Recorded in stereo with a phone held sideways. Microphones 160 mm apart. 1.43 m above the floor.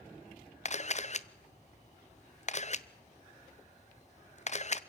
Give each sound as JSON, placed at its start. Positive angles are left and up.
{"t": 0.7, "sound": "a camera shutter", "side_deg": 45, "distance_m": 0.6}